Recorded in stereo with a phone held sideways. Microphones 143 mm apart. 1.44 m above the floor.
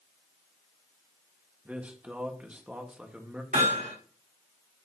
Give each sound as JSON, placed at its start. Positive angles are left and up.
{"t": 1.6, "sound": "a man speaking", "side_deg": -10, "distance_m": 1.5}
{"t": 3.5, "sound": "hammering", "side_deg": -65, "distance_m": 4.5}